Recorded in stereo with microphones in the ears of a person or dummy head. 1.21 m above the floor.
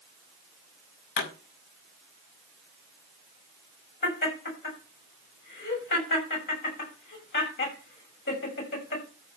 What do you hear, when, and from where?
1.2 s a pop: 55° left (ahead or behind), 5.5 m
4.0 s laughter: 50° left (ahead or behind), 6 m